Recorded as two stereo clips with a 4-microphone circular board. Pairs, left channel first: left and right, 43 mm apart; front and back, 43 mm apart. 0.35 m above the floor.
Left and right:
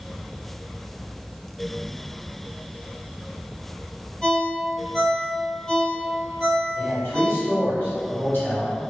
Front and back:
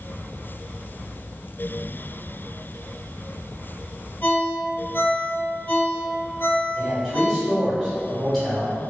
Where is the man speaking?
75° left, 1.6 m.